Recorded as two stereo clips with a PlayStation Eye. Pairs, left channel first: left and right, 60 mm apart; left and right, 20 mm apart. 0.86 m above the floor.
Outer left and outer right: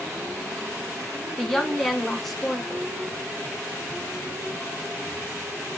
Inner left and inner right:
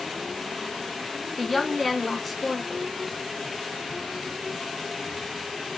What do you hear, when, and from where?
1.4 s a woman speaking: 5° left (ahead or behind), 1.3 m